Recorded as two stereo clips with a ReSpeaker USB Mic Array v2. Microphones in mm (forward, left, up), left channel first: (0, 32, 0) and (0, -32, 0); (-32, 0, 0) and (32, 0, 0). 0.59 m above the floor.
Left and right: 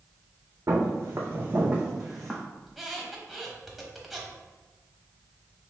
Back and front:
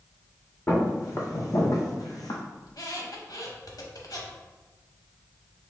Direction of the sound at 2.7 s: Straight behind.